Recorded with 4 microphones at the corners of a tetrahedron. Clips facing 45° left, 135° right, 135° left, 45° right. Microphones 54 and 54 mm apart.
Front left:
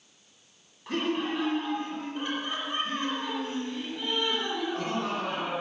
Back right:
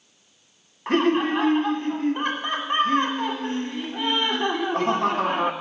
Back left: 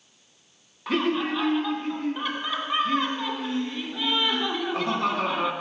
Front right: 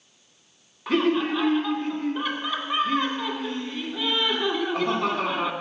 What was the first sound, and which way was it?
Laughter, 135° right.